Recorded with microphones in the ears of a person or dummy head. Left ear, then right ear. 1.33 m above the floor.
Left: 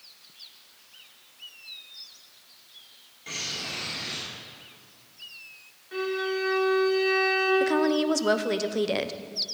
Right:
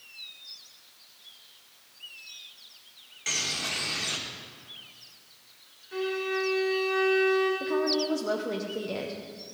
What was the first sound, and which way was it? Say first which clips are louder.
A bird: right 3 dB; 60° right (ahead or behind).